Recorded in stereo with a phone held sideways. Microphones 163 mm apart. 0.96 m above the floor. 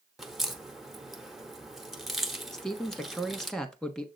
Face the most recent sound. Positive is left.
turn(degrees=5)  # may be behind; listen again after turning